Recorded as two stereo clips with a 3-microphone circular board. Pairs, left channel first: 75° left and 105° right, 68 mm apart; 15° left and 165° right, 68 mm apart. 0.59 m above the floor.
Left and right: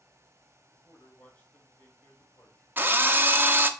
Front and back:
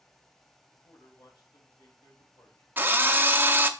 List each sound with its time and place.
0.7 s a man speaking: 5° left, 3 m
2.8 s a drill: 135° right, 0.6 m